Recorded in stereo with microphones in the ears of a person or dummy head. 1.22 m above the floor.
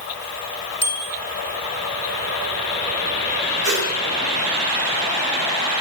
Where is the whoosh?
85° left, 9 m.